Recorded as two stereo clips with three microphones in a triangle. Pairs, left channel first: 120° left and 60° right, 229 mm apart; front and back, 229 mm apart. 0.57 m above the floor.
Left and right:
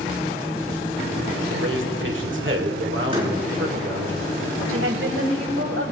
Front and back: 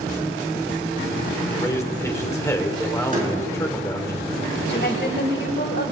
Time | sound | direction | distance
1.5 | a man speaking | 75° right | 1.6 m
3.1 | a door slam | 125° right | 5.5 m
4.7 | a woman speaking | 40° right | 2.5 m